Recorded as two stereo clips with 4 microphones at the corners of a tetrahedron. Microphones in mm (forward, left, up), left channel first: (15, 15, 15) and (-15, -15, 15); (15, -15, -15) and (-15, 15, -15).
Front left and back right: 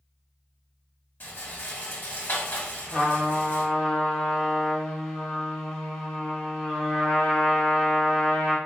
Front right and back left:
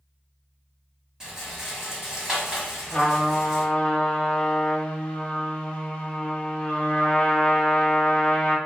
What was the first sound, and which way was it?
A rattle, 65° left.